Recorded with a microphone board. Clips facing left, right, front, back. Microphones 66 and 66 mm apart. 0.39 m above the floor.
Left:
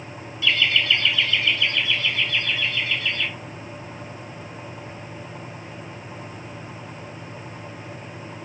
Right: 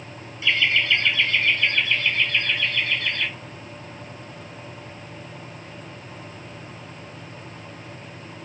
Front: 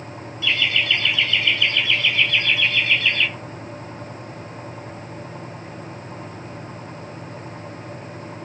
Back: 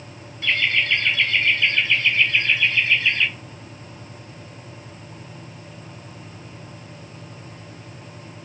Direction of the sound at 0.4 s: 145° right.